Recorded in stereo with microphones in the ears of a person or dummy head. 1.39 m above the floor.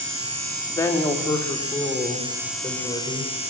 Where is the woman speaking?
15° left (ahead or behind), 3.5 m; by 3.3 s 20° left (ahead or behind), 7 m.